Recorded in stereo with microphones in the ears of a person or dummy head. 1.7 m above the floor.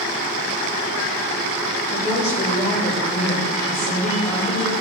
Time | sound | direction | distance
1.9 | a woman speaking | 15° left (ahead or behind) | 4.5 m